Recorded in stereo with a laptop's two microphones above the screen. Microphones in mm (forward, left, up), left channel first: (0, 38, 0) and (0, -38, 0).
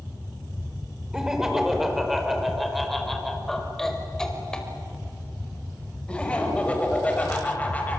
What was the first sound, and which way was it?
Laughter, 10° right (ahead or behind).